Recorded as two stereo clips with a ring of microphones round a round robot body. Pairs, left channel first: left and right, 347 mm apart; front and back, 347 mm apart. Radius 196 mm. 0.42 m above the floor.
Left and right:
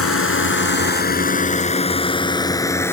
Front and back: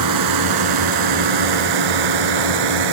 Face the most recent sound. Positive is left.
turn(degrees=175)